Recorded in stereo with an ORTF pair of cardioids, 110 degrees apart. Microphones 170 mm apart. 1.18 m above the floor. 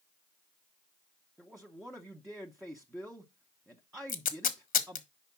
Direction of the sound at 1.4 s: Straight ahead.